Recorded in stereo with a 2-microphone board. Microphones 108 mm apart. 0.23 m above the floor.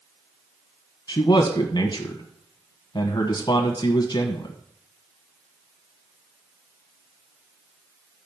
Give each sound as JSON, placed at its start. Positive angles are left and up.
{"t": 1.1, "sound": "a man speaking", "side_deg": 45, "distance_m": 1.4}